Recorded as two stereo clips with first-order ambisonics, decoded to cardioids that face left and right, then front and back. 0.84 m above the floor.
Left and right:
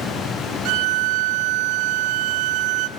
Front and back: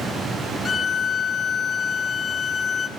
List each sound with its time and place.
0.7 s a violin: 70° right, 0.5 m